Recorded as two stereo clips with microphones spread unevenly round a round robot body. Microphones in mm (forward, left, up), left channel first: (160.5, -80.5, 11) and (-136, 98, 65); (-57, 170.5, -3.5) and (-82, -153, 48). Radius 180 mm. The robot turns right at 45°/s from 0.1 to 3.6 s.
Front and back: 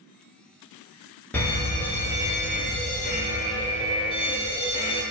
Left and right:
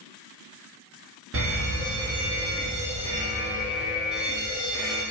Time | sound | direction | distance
1.3 | a fire alarm | 95° right | 1.6 m